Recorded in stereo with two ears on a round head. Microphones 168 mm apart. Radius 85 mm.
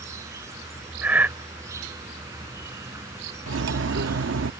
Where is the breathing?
10° right (ahead or behind).